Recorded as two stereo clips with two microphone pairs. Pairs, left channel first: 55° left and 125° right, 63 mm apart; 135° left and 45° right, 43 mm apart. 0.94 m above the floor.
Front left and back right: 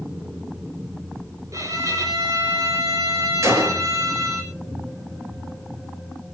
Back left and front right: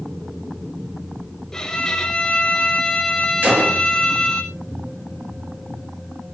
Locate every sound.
1.5 s a violin: 150° right, 3 m
3.4 s a gunshot: 85° right, 5 m